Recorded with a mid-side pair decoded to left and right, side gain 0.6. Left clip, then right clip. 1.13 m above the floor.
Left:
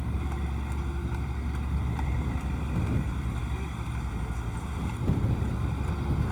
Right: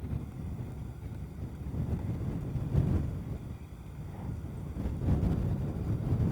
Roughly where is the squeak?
I don't hear a squeak.